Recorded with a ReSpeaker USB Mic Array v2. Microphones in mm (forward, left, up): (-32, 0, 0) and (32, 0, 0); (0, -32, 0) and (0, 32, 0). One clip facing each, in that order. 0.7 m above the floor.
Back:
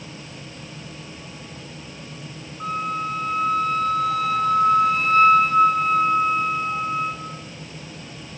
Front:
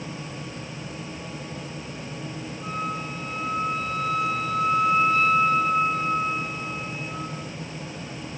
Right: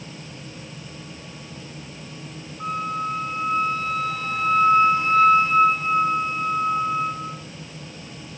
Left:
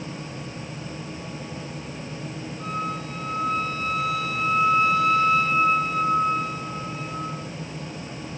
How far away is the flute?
About 5 m.